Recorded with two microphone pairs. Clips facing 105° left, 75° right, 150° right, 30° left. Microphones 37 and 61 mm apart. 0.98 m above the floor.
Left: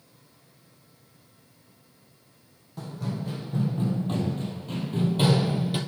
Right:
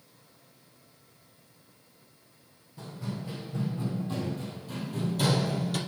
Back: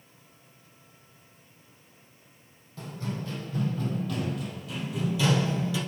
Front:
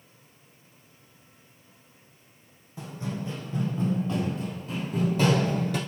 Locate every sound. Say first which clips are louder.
2.8 s running footsteps: left 4 dB, front 1 dB; 105° left, 2.5 m; by 5.8 s 45° left, 1.5 m